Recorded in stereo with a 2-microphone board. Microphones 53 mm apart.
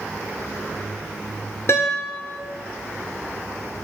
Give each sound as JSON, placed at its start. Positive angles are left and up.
{"t": 1.7, "sound": "a guitar", "side_deg": 55, "distance_m": 1.6}